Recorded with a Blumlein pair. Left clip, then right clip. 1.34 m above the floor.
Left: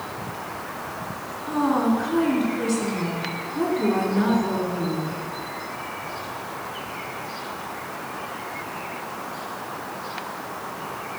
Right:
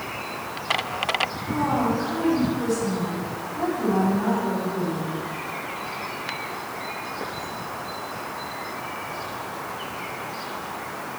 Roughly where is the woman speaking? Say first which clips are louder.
Left 5 dB; left.